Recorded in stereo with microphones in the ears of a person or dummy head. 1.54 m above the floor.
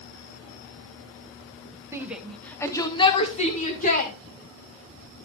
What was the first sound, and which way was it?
A shout, 15° right (ahead or behind).